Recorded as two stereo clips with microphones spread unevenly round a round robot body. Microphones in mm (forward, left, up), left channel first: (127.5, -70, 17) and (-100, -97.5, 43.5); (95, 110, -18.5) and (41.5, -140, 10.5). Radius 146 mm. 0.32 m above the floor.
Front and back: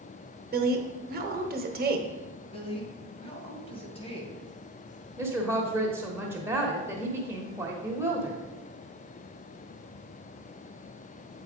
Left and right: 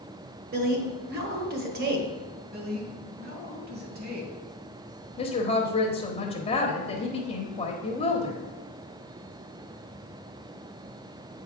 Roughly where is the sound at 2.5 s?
Ahead right.